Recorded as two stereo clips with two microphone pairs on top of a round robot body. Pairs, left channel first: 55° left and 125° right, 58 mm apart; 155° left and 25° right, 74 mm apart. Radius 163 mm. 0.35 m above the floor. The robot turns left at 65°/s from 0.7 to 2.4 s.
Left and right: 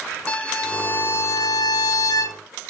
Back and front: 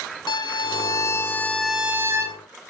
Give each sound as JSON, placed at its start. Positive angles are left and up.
{"t": 0.3, "sound": "a violin", "azimuth_deg": 130, "distance_m": 0.9}